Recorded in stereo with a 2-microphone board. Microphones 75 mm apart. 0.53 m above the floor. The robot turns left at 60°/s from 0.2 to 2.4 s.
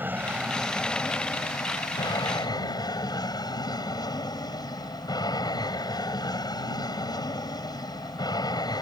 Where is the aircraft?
150° right; by 8.8 s 75° left.